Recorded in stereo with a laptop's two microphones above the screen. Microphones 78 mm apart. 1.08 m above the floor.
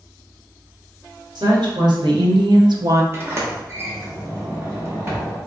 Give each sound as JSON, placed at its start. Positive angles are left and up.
{"t": 1.4, "sound": "a woman speaking", "side_deg": -60, "distance_m": 1.2}
{"t": 3.1, "sound": "a sliding door", "side_deg": -30, "distance_m": 0.7}